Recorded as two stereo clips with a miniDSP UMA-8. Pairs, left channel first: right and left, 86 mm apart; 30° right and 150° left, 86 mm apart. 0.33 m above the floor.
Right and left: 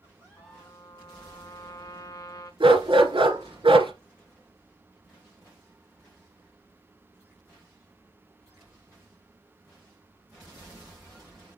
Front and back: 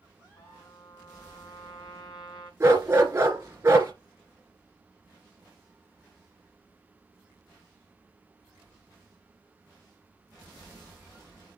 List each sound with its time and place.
0.4 s a trumpet: 45° right, 3.5 m
2.6 s a dog barking: 90° left, 2 m